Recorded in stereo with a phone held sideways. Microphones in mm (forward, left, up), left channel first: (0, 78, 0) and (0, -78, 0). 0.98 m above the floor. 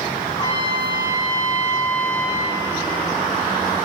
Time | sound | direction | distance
0.3 | a trumpet | 30° left (ahead or behind) | 1.3 m